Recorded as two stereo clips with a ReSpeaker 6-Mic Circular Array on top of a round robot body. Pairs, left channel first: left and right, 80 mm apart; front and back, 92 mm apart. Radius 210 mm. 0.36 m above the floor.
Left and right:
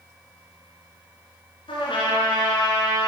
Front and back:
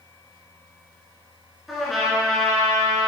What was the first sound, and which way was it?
A trumpet, 90° left.